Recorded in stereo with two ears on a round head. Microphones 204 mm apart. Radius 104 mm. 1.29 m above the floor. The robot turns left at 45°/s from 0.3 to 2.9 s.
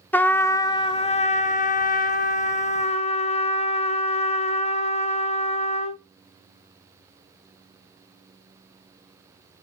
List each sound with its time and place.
0.1 s a trumpet: 165° left, 0.6 m; by 6.0 s 50° left, 0.6 m